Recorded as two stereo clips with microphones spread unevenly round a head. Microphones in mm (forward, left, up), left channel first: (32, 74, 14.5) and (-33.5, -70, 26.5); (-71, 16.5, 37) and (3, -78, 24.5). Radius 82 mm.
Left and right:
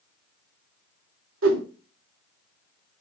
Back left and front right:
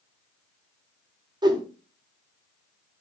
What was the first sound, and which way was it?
A whoosh, 110° right.